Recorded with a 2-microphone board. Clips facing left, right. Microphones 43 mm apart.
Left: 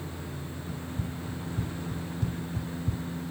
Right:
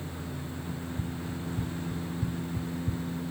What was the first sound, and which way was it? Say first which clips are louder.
Running footsteps: even; 75° left (ahead or behind).